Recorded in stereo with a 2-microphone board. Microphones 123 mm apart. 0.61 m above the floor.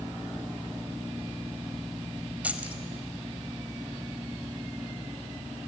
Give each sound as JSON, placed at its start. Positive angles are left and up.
{"t": 2.4, "sound": "keys jangling", "side_deg": -10, "distance_m": 1.8}